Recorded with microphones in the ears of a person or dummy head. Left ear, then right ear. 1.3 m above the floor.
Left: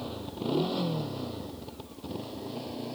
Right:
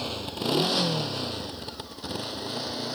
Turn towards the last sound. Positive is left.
turn(degrees=-45)  # may be behind; listen again after turning